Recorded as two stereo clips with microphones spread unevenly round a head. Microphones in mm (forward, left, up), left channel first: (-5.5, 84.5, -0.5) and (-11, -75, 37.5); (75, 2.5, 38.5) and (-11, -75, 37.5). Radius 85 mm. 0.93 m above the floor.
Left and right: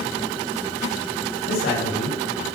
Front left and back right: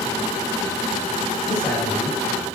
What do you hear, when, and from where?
1.5 s a man speaking: 120° left, 5 m